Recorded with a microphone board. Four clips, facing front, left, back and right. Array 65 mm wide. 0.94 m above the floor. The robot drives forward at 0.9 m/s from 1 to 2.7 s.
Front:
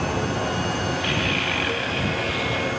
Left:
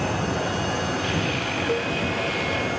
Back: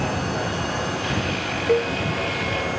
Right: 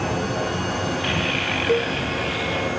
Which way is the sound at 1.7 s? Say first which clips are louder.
Right 6 dB, back 7 dB; 145° right.